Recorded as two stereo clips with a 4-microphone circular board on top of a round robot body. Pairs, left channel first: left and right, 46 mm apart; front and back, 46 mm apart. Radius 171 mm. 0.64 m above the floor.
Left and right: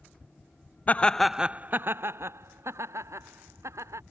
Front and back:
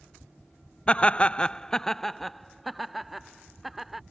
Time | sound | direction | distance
0.9 | laughter | 55° left | ?